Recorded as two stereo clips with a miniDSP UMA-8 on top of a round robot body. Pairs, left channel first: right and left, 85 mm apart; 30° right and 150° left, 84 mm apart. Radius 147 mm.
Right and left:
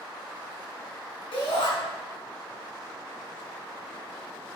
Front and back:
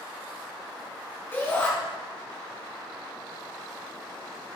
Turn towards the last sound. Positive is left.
turn(degrees=-95)